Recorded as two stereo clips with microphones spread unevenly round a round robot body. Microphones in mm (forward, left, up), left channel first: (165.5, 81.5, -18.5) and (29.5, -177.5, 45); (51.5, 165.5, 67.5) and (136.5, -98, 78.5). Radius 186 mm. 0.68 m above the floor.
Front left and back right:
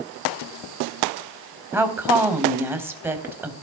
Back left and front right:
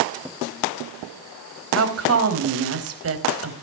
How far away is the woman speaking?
About 4 m.